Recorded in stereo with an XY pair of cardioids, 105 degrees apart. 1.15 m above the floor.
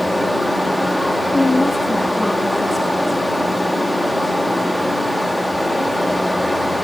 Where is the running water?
5° left, 2 m.